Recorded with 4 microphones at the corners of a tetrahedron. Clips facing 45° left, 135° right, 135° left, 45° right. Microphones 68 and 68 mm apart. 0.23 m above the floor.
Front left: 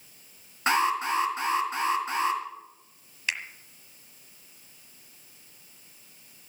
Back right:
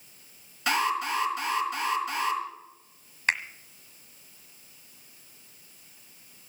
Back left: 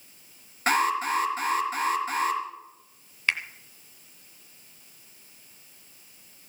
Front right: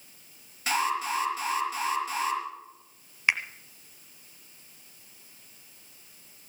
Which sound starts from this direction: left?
An alarm, at 0.7 s.